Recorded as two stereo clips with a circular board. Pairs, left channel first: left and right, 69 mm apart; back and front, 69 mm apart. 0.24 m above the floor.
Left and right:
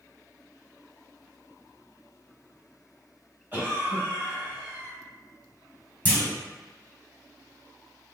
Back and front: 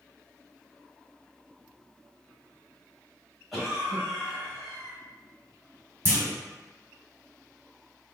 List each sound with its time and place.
3.5 s a cough: 90° right, 1.2 m
6.0 s a clunk: 35° left, 1.0 m